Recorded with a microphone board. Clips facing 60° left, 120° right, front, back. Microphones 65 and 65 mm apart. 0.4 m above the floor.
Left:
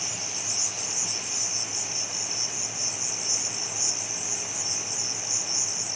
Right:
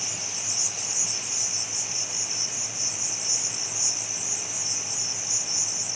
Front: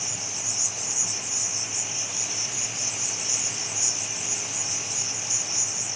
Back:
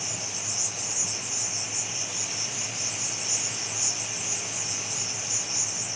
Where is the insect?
165° left, 3 m.